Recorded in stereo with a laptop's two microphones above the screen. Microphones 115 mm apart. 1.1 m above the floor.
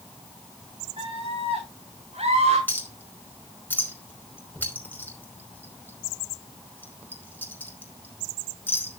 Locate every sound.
1.0 s a scream: 55° right (ahead or behind), 6.5 m; by 2.6 s 70° right (ahead or behind), 6.5 m
2.7 s a clink: 15° left (ahead or behind), 4.5 m